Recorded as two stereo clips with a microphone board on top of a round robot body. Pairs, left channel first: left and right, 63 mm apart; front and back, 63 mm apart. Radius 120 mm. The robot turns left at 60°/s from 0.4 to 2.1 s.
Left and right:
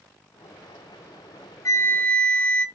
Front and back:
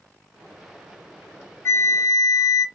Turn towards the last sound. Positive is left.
turn(degrees=25)